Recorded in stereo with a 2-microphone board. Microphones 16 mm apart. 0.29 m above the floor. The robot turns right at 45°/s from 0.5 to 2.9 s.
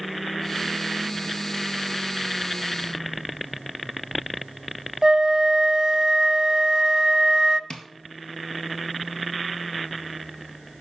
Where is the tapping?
55° left (ahead or behind), 1.7 m.